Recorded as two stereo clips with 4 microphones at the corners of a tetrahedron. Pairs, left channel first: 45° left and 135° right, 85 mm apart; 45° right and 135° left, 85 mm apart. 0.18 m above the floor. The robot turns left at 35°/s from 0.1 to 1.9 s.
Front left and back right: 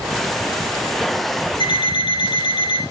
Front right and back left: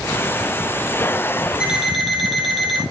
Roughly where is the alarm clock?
Ahead left.